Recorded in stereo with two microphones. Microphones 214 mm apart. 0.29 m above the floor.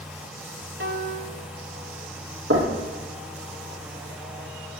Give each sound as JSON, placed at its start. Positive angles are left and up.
{"t": 0.8, "sound": "a piano", "side_deg": -55, "distance_m": 1.7}
{"t": 2.5, "sound": "knocking", "side_deg": -70, "distance_m": 7.0}